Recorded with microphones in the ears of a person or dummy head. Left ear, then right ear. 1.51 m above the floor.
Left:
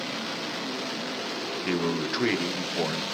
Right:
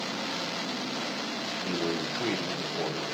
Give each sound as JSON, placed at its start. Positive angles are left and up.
{"t": 1.6, "sound": "a man speaking", "side_deg": 50, "distance_m": 0.9}